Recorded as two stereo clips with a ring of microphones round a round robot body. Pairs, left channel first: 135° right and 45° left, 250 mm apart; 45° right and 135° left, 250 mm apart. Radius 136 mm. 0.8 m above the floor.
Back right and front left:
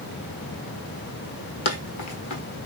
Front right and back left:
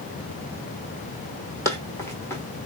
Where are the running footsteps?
120° right, 1.2 m.